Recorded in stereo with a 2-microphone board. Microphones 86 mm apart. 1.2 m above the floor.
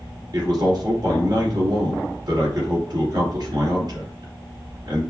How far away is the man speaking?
About 2 m.